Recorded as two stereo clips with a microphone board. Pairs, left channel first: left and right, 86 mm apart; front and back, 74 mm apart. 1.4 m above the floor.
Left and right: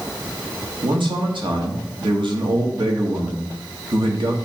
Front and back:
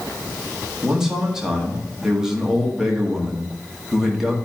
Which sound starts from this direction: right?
A man speaking, at 0.8 s.